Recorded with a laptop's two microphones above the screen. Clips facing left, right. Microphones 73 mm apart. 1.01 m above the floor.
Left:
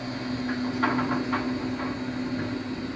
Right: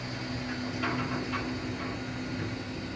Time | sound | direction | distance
0.0 | a machine running | 45° left (ahead or behind) | 1.7 m